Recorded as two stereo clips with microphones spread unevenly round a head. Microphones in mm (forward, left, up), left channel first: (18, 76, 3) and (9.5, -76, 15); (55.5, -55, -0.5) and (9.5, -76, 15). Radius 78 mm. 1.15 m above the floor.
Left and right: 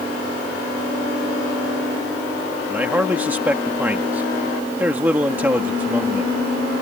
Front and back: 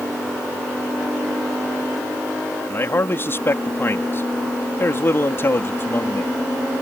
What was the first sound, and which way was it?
A man speaking, 15° right.